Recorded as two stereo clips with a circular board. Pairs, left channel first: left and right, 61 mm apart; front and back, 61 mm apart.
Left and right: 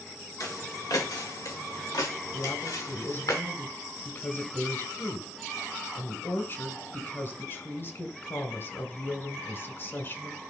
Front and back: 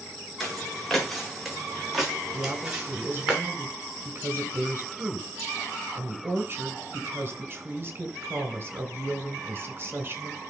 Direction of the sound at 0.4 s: 85° left.